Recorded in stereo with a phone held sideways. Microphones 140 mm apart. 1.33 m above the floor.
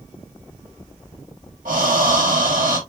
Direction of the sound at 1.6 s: 80° right.